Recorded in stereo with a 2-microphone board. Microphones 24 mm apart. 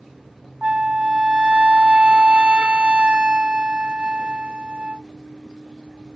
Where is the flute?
45° right (ahead or behind).